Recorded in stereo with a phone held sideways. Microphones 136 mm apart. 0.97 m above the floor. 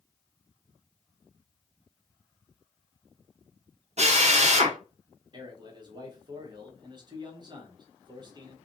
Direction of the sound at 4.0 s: 55° right (ahead or behind).